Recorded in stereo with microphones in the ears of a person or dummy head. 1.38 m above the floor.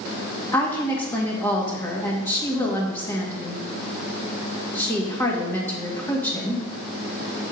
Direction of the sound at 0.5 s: 20° left (ahead or behind).